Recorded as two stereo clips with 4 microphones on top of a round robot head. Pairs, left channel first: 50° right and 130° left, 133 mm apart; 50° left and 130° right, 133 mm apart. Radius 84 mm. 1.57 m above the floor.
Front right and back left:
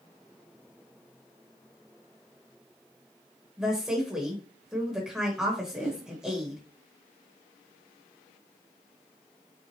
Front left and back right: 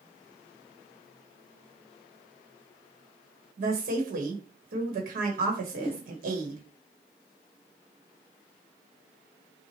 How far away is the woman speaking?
About 1.2 m.